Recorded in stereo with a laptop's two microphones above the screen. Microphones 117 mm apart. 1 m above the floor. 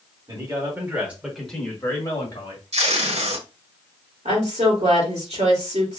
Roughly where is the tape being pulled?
Right.